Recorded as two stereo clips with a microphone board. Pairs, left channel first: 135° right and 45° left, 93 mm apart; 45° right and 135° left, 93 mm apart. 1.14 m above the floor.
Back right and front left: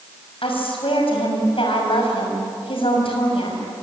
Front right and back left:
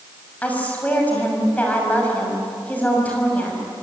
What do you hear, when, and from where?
0.4 s a woman speaking: 120° right, 6 m